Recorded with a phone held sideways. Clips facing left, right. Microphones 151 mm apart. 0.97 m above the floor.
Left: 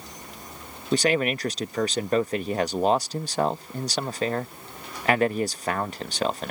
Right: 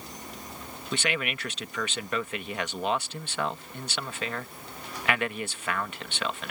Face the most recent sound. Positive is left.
turn(degrees=35)  # may be behind; listen again after turning